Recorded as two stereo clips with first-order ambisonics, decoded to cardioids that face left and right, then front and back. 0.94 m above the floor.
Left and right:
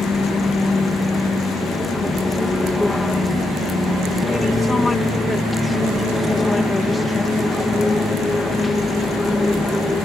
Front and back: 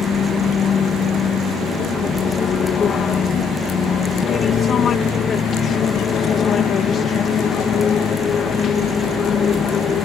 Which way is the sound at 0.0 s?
20° left.